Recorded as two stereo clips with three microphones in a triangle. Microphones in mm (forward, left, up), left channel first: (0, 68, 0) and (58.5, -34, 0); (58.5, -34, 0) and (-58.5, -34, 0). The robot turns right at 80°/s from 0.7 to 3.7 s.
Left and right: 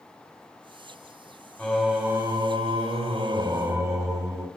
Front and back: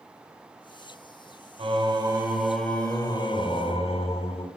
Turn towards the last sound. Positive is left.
turn(degrees=0)